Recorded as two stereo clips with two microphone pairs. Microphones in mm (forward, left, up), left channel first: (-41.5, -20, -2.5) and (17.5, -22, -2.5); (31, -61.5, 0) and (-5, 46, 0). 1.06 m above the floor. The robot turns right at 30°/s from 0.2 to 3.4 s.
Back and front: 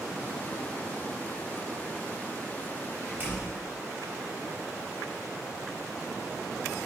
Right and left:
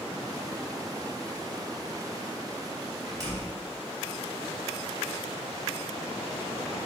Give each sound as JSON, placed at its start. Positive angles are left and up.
{"t": 3.1, "sound": "a door slam", "azimuth_deg": 45, "distance_m": 3.5}